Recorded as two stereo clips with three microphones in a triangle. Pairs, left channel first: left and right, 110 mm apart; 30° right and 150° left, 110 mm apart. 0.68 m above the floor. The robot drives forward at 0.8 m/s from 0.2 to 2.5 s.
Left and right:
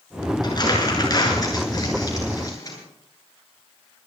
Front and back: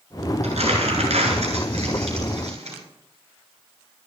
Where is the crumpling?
140° left, 7 m; by 2.8 s 145° left, 8.5 m.